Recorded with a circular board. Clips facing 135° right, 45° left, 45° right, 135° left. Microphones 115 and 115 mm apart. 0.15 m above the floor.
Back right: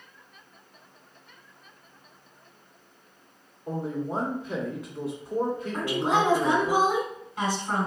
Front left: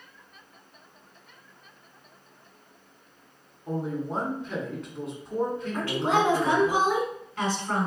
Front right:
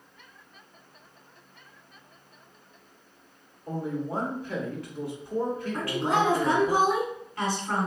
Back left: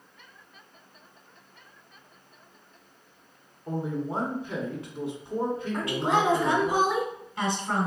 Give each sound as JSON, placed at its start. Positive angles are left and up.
{"t": 3.7, "sound": "a man speaking", "azimuth_deg": 150, "distance_m": 1.2}
{"t": 5.7, "sound": "a woman speaking", "azimuth_deg": 170, "distance_m": 1.5}